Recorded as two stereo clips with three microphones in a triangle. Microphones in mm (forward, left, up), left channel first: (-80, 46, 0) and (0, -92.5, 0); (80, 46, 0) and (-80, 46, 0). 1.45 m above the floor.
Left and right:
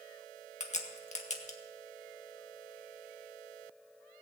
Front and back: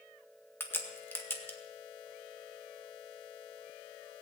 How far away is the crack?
About 1.9 m.